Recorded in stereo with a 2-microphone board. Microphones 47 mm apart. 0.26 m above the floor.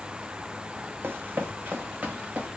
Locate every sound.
1.0 s running footsteps: 55° right (ahead or behind), 1.0 m; by 2.5 s 30° right (ahead or behind), 2.5 m